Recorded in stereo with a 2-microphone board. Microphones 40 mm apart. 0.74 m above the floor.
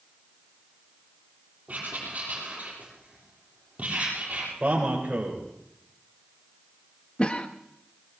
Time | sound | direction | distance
1.7 | writing | 35° right (ahead or behind) | 7 m
4.6 | a man speaking | 30° right (ahead or behind) | 4 m
7.2 | a cough | 25° left (ahead or behind) | 0.6 m